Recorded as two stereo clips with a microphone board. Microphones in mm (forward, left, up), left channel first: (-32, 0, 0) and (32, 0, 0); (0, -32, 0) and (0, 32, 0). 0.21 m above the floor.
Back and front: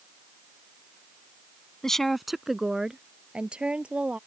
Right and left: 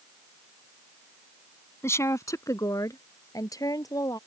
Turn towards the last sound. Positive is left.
turn(degrees=-70)